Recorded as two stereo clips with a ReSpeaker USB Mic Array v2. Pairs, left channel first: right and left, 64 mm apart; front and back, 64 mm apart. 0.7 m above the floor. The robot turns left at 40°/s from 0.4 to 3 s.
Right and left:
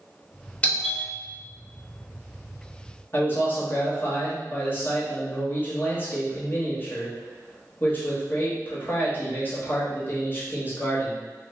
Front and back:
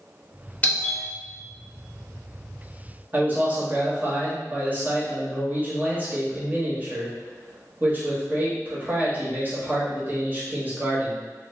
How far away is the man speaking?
About 1.1 m.